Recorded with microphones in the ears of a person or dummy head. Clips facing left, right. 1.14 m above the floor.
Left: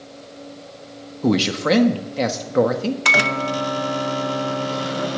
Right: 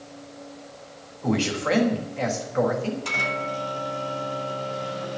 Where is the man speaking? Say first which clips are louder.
Left 5 dB; 55° left (ahead or behind), 1.3 m.